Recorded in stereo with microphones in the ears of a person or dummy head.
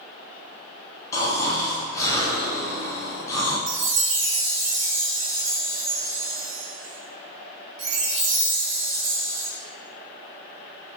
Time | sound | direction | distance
1.1 | snoring | 20° left (ahead or behind) | 0.8 m
3.7 | a chime | 75° right (ahead or behind) | 1.0 m